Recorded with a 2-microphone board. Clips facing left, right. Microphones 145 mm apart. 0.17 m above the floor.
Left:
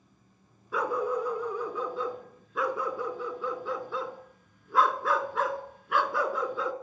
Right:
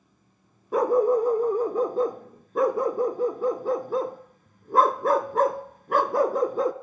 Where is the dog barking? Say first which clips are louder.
Right 9 dB; 45° right (ahead or behind), 0.9 m.